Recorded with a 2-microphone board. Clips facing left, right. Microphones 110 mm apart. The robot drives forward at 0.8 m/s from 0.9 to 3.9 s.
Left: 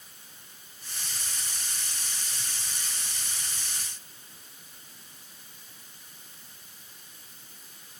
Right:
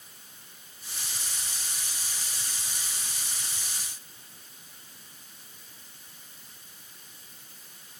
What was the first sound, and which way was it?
Only background noise.